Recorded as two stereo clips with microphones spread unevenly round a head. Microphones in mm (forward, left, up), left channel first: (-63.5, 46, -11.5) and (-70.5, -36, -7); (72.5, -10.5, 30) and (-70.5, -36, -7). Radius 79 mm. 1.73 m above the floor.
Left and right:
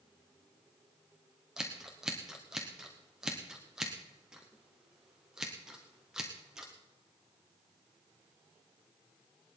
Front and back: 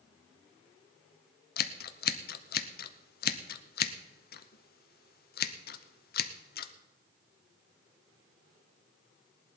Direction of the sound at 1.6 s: 10° right.